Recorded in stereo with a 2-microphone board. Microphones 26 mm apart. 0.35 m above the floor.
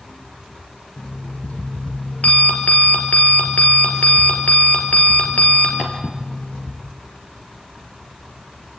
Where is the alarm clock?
70° left (ahead or behind), 3.5 m.